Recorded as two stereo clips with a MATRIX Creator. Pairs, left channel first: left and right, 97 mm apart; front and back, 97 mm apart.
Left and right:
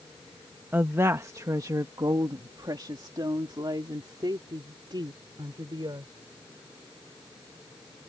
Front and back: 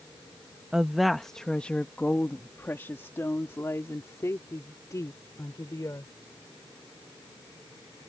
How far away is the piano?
I don't hear a piano.